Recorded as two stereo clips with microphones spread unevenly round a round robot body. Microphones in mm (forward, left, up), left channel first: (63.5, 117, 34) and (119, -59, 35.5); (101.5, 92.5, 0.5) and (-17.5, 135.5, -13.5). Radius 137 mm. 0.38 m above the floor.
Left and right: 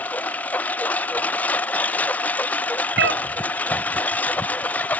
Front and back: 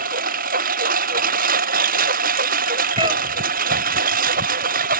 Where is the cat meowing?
125° right.